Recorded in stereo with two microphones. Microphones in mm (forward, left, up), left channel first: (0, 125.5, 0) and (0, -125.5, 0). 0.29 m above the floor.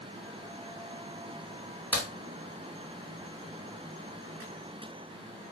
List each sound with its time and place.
1.9 s a crack: 5° right (ahead or behind), 1.8 m